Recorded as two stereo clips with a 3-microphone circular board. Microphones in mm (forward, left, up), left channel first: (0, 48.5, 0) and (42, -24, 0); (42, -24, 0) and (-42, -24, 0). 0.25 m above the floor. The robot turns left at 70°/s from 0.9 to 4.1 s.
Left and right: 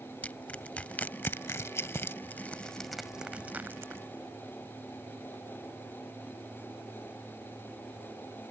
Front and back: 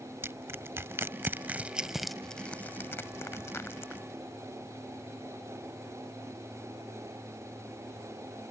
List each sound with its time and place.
0.2 s crushing: 175° left; by 4.0 s 45° right